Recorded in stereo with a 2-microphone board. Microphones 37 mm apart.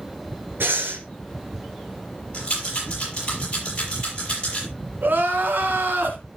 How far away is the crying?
About 2.5 m.